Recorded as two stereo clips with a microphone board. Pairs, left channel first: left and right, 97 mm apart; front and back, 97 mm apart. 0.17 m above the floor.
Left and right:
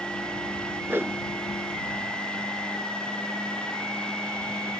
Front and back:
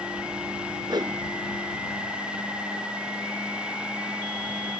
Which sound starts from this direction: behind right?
A whoosh, at 0.9 s.